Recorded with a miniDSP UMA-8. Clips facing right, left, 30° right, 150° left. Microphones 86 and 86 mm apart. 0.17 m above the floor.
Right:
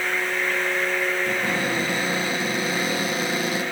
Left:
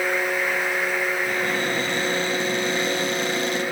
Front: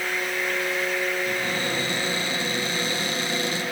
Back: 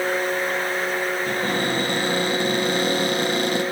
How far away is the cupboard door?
About 7 m.